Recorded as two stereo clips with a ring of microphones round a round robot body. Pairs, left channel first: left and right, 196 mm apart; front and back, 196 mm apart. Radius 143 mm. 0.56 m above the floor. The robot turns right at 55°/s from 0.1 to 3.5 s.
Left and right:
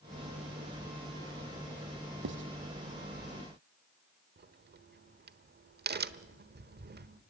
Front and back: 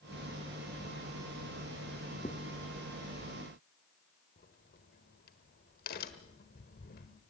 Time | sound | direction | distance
2.2 | writing | 70° right | 0.9 m
4.4 | a crack | 55° right | 1.2 m